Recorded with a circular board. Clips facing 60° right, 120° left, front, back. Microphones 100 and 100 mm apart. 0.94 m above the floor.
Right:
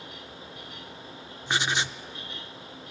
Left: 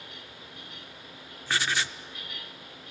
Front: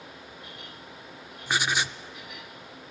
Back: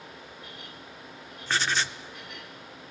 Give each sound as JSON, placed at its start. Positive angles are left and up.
{"t": 1.5, "sound": "writing", "azimuth_deg": -50, "distance_m": 0.5}